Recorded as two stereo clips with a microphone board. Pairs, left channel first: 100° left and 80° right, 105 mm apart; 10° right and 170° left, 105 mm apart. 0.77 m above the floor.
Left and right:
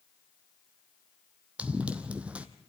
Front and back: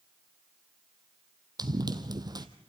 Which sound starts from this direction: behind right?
Running footsteps, at 1.6 s.